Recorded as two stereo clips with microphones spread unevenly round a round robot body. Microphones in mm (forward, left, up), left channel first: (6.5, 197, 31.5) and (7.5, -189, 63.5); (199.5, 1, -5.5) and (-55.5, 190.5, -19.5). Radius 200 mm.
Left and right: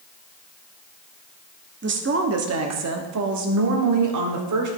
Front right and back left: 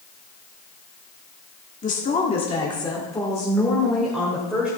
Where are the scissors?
I don't hear scissors.